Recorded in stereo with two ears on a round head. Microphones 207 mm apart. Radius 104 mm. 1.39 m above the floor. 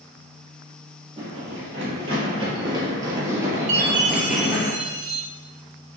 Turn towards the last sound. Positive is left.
turn(degrees=-80)